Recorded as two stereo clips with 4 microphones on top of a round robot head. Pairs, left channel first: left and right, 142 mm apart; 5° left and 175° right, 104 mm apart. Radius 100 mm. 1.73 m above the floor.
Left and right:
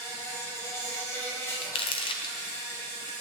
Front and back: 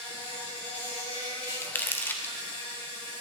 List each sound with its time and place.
0.0 s an insect: 20° left, 4 m
1.6 s crumpling: 60° left, 0.7 m